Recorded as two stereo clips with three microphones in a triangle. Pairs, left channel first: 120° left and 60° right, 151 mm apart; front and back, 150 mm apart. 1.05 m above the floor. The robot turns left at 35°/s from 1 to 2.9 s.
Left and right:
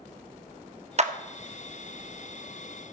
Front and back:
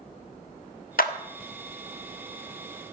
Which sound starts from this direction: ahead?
A clap, at 1.0 s.